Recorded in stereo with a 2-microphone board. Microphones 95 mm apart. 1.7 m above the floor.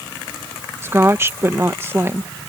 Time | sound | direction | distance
0.8 | a woman speaking | 25° right (ahead or behind) | ?